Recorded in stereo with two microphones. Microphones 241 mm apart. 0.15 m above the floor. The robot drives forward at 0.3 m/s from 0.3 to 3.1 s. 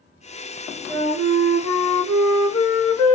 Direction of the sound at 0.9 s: 15° left (ahead or behind).